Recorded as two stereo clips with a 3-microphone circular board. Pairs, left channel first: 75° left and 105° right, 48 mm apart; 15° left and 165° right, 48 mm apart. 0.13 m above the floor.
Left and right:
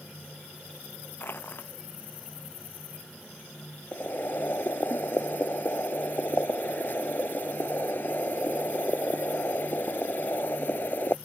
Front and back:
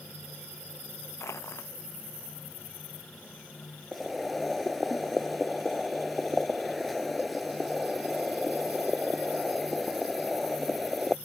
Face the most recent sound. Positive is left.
turn(degrees=105)